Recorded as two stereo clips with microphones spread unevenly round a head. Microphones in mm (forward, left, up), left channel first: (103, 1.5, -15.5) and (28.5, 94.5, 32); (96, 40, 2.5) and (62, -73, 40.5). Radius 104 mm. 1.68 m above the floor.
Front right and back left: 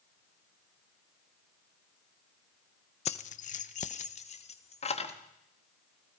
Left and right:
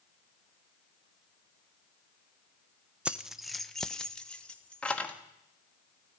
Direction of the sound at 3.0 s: 80° right.